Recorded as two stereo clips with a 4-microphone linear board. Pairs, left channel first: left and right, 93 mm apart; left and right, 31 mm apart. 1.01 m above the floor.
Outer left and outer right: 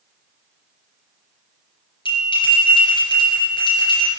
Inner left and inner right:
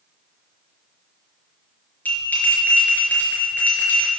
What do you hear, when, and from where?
2.0 s a bell: 60° left (ahead or behind), 5 m